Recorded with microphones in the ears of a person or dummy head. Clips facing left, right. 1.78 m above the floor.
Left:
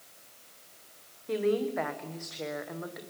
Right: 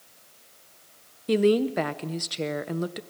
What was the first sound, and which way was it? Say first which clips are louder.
A woman speaking: right 7 dB; 50° right (ahead or behind).